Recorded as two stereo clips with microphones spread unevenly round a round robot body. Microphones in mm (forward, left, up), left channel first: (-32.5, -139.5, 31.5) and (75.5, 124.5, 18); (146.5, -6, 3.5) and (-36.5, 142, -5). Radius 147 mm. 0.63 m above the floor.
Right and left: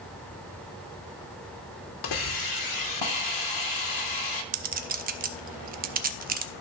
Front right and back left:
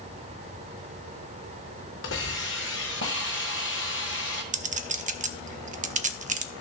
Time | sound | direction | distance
2.0 | a hiss | 95° right | 0.8 m
4.5 | a clink | 105° left | 0.5 m